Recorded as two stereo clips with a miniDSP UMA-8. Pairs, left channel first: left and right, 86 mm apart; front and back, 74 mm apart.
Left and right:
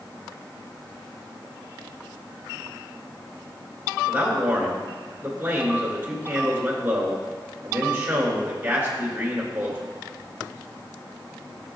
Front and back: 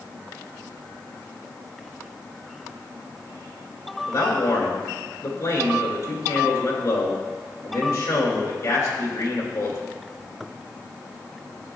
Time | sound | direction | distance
4.1 | a man speaking | 25° right | 2.5 m